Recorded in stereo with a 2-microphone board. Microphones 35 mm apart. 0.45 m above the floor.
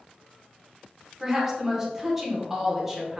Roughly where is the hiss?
No hiss in this recording.